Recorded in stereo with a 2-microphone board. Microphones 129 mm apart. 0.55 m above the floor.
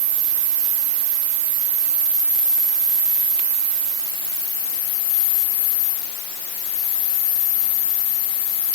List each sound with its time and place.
Only background noise.